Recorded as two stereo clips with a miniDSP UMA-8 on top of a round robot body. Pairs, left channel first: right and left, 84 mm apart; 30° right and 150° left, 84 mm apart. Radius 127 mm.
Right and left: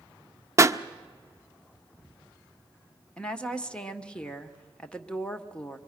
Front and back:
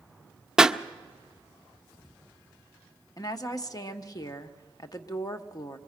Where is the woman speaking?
15° right, 1.5 m.